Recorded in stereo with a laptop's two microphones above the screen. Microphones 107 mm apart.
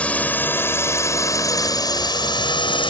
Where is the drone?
15° left (ahead or behind); by 2.9 s 55° left (ahead or behind).